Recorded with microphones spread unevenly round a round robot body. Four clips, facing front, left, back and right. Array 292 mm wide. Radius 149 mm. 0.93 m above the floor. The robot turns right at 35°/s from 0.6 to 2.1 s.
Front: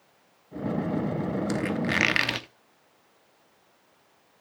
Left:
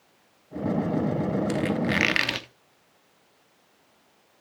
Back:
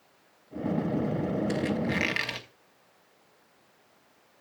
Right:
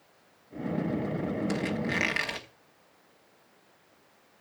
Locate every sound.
1.5 s a squeak: 10° left, 0.9 m; by 2.5 s 35° left, 0.9 m